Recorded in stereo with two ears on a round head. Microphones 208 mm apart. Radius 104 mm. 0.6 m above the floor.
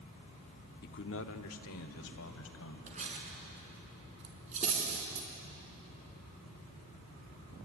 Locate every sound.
0.8 s a man speaking: 45° left (ahead or behind), 0.9 m; by 2.8 s 70° left (ahead or behind), 3.5 m
2.9 s cutlery clinking: 30° right (ahead or behind), 4.5 m